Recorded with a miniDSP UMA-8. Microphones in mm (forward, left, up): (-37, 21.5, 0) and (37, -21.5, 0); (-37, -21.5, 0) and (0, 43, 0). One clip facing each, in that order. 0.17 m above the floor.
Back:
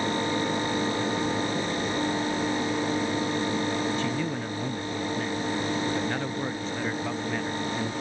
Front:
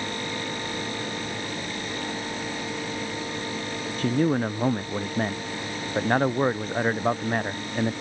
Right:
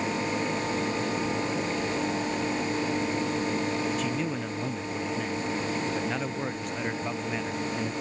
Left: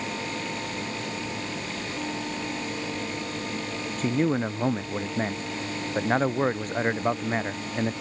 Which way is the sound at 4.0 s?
15° left.